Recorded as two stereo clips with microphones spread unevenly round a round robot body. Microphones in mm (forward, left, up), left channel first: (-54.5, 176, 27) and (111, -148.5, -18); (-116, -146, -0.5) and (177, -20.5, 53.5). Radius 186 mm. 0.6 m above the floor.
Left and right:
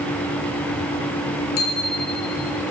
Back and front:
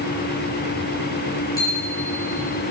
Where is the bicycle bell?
120° left, 8 m.